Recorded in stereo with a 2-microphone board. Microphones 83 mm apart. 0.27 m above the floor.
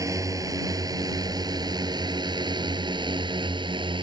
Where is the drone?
40° right (ahead or behind); by 4.0 s 75° right (ahead or behind).